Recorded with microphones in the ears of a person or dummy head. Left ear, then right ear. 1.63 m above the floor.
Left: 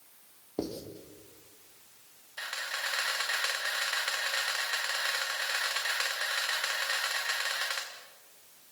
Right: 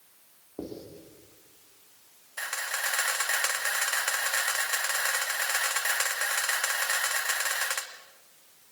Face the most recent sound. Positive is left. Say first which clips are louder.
# right 3 dB
turn(degrees=-30)  # may be behind; listen again after turning